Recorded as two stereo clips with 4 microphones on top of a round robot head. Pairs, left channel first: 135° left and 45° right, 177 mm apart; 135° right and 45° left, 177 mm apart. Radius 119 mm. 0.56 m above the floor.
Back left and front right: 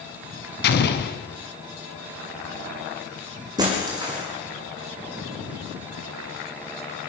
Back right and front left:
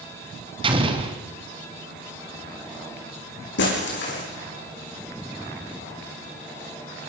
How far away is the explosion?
About 3 m.